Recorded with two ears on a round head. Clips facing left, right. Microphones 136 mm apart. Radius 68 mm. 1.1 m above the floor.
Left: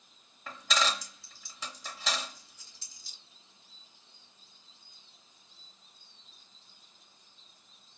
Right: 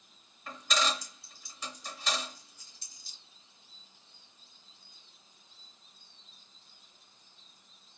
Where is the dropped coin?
60° left (ahead or behind), 1.9 m.